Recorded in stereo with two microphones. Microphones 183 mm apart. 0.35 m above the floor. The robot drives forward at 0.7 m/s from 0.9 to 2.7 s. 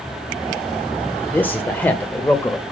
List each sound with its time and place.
1.3 s a man speaking: 10° left (ahead or behind), 1.3 m